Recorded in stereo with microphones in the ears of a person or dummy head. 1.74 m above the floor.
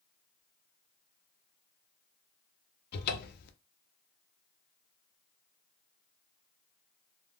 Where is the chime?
I don't hear a chime.